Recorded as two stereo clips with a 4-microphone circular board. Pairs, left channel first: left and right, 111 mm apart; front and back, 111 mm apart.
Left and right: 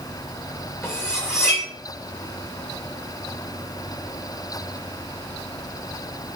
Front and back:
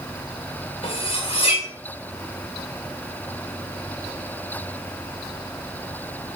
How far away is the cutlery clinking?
About 1.7 m.